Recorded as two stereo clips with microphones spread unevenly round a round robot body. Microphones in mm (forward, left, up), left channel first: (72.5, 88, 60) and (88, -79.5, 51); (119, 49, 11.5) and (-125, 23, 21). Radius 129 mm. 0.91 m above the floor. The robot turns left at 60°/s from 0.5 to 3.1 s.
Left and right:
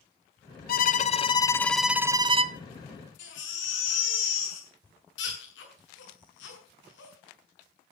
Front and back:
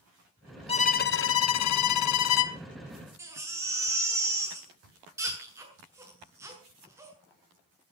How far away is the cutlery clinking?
No cutlery clinking in this recording.